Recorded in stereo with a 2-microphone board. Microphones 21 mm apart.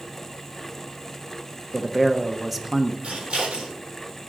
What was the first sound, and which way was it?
A man speaking, 5° right (ahead or behind).